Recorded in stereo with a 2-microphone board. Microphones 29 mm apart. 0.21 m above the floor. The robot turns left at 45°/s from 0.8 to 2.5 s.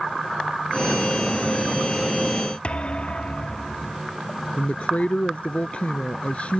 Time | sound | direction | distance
2.6 | a thud | 40° left (ahead or behind) | ?
4.6 | a woman speaking | 45° left (ahead or behind) | ?